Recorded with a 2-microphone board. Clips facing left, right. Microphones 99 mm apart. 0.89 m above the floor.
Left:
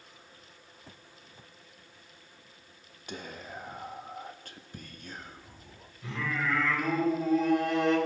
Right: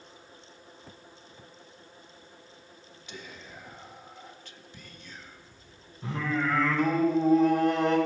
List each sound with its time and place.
3.1 s whispering: 50° left (ahead or behind), 1.1 m
6.0 s singing: 35° right (ahead or behind), 3.5 m